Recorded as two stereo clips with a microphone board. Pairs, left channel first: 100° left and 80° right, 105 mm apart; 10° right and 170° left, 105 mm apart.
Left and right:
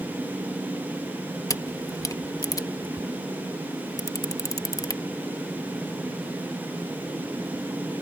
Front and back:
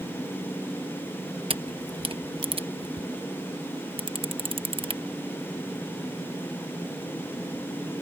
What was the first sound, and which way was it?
A camera shutter, 150° left.